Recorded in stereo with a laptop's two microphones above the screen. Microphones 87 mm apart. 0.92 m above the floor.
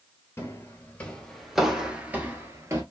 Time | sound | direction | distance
0.4 | footsteps | 30° left (ahead or behind) | 1.2 m